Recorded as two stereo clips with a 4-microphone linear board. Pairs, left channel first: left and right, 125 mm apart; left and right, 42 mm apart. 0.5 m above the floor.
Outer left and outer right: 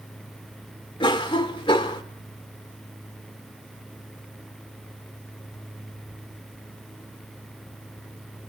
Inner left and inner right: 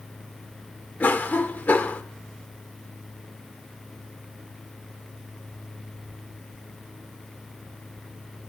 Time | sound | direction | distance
1.0 | a cough | 40° left (ahead or behind) | 1.7 m